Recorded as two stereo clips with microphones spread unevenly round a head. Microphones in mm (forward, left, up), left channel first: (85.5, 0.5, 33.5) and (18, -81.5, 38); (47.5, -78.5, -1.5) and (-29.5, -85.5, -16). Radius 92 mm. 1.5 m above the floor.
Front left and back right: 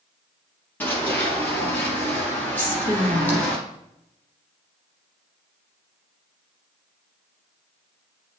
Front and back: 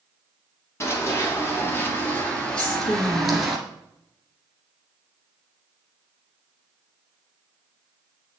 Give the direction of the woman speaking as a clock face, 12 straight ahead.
12 o'clock.